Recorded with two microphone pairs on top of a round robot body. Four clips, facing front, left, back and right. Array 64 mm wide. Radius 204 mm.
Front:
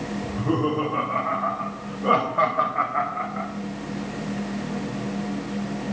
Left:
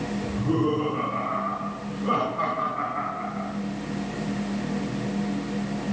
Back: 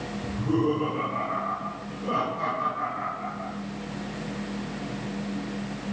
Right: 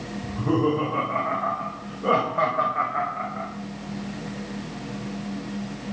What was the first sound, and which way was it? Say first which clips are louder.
Laughter: right 3 dB, front 1 dB; 60° right.